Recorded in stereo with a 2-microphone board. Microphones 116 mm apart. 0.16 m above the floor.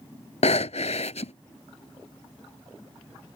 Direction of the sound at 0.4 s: 70° left (ahead or behind).